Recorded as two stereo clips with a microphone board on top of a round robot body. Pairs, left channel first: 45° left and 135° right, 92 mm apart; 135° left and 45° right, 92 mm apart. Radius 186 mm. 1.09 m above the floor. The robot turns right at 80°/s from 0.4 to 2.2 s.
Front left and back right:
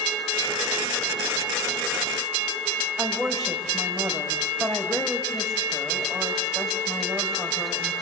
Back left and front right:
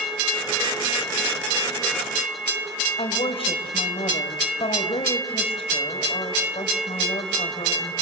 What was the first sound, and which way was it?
A woman speaking, 135° left.